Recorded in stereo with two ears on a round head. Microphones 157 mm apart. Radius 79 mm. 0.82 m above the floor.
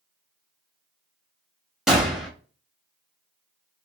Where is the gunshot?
5° right (ahead or behind), 0.5 m.